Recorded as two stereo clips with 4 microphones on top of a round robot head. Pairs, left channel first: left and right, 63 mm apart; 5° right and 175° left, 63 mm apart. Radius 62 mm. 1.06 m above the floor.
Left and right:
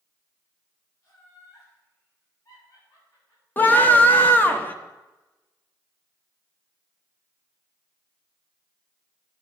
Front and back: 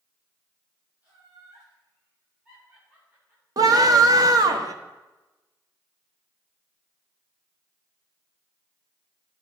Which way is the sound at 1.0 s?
110° left.